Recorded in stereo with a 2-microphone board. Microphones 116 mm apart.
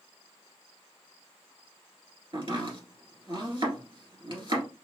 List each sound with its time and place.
2.3 s chopping: 45° right (ahead or behind), 1.8 m